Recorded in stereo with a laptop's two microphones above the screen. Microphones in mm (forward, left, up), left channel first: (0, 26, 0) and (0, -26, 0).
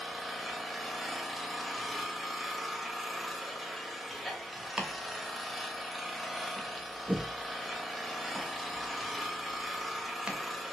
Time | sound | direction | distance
0.0 | an engine running | centre (ahead or behind) | 0.8 m
4.8 | chopping | 20° right (ahead or behind) | 0.6 m